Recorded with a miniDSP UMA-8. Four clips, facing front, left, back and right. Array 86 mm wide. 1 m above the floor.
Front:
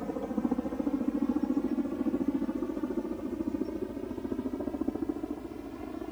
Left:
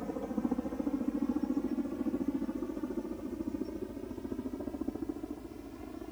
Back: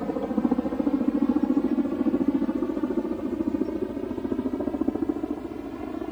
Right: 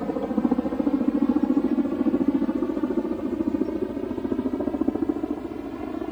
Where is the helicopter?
120° right; by 6.1 s 115° right.